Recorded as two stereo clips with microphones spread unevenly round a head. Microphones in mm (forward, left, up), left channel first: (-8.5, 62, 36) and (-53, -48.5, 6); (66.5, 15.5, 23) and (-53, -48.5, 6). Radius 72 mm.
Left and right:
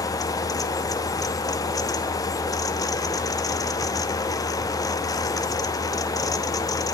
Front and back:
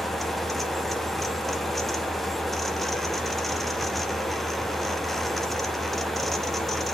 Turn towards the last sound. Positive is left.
turn(degrees=130)